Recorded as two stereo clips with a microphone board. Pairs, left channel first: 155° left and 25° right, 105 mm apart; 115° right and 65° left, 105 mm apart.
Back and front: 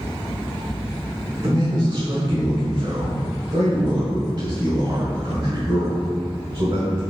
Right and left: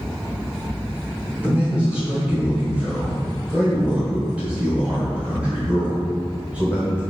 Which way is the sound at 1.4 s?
5° right.